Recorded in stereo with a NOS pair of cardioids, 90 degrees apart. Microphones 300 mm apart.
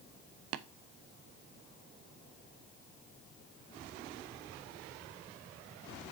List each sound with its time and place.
0.5 s tapping: 60° right, 0.6 m